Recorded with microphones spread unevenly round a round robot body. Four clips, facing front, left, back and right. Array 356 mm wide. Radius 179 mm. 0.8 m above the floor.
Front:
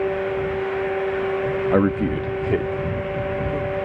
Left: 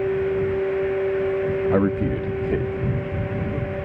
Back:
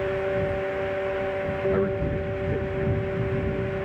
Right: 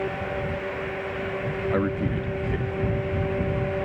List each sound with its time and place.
1.7 s a man speaking: 40° left; by 3.8 s 15° left